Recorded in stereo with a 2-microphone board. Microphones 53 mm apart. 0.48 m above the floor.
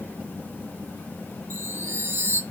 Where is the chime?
50° right (ahead or behind), 1.2 m.